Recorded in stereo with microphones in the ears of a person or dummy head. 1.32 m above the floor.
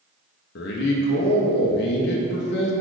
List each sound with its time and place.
0.6 s a man speaking: 50° left (ahead or behind), 0.7 m